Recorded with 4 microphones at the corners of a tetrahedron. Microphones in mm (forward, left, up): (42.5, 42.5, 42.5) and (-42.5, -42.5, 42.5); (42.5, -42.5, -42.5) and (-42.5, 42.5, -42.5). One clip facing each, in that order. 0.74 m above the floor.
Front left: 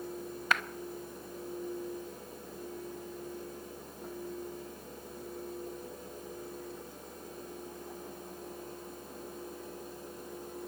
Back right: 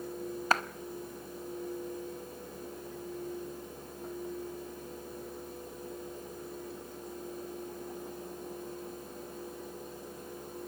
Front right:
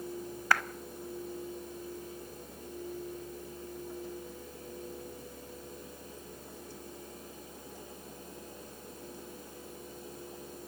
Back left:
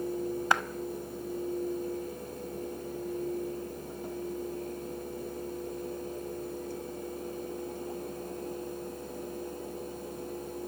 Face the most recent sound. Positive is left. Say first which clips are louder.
# back right 3 dB, back left 1 dB
turn(degrees=-170)